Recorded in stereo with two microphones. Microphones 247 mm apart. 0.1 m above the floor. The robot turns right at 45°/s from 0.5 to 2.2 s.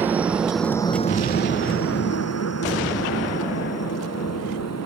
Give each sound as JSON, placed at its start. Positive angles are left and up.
{"t": 0.0, "sound": "a helicopter", "side_deg": -5}